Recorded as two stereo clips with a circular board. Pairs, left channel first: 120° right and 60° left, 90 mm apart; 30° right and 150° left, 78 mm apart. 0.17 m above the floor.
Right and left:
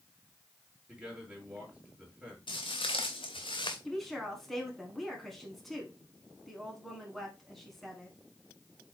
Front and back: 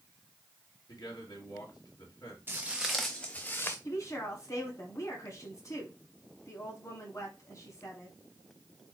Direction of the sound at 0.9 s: 15° right.